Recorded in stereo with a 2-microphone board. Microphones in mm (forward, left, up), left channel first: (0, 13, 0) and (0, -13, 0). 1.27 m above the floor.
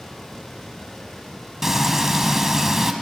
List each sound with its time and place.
1.6 s frying: 15° right (ahead or behind), 1.2 m